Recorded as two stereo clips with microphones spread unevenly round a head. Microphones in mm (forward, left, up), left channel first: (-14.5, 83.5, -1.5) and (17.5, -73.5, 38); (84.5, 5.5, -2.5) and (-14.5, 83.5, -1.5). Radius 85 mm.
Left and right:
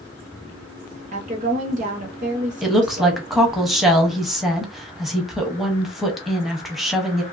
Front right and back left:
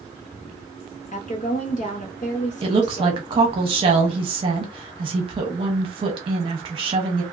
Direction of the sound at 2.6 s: Straight behind.